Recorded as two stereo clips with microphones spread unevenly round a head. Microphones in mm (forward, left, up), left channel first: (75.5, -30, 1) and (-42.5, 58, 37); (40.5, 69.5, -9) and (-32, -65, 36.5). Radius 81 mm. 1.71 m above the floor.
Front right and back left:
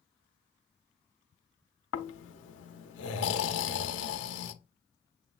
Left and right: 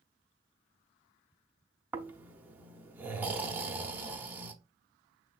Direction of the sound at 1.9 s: 50° right.